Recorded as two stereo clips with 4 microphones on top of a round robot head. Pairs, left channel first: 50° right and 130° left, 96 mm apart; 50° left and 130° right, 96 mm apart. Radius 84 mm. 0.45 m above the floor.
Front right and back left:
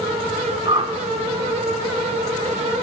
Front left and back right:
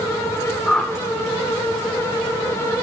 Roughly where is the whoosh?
Behind left.